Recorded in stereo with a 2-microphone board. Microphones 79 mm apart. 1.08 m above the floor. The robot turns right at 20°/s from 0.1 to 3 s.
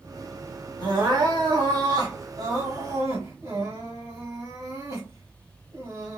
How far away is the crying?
About 1.3 m.